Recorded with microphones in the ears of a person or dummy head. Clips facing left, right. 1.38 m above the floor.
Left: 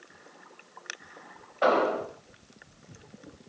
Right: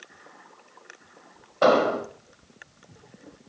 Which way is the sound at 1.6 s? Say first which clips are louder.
Right 4 dB; 50° right (ahead or behind).